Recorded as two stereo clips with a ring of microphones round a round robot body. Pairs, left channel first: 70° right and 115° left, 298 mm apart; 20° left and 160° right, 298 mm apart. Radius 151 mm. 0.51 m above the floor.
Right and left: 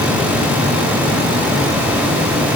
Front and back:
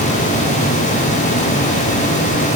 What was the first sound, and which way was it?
Only background noise.